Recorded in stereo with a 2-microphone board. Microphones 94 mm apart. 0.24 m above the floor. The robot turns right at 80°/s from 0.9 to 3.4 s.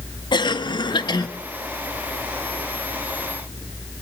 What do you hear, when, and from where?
0.3 s a cough: 55° left (ahead or behind), 1.5 m; by 1.3 s 45° left (ahead or behind), 1.5 m